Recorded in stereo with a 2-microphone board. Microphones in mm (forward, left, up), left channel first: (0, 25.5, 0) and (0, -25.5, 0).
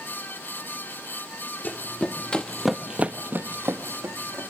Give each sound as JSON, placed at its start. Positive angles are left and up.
{"t": 1.6, "sound": "running footsteps", "side_deg": 40, "distance_m": 1.6}